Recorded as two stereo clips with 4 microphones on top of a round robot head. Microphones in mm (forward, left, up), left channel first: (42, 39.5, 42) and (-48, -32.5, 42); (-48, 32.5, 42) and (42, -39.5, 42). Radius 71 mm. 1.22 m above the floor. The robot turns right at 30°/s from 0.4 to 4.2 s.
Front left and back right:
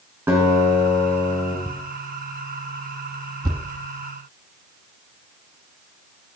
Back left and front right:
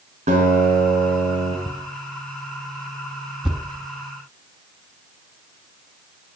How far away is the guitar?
About 4.5 m.